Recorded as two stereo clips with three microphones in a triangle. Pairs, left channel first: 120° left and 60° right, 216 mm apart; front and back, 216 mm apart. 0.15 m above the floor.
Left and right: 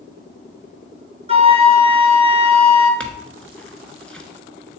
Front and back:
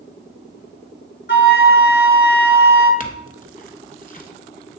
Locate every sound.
1.3 s a flute: 5° right, 1.1 m
3.0 s a clink: 35° left, 1.0 m